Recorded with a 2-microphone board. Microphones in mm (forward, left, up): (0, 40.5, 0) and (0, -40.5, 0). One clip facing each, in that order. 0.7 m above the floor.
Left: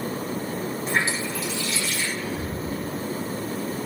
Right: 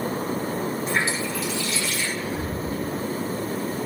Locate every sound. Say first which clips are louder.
0.9 s a running tap: even; 40° left (ahead or behind), 3.5 m
2.2 s whispering: right 1 dB; 35° right (ahead or behind), 1.3 m